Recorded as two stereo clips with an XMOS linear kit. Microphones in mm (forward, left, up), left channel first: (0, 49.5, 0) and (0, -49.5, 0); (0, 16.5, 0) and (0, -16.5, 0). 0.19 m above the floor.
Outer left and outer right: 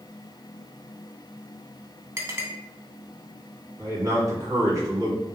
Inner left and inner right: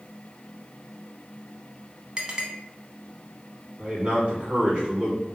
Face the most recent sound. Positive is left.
turn(degrees=-35)  # may be behind; listen again after turning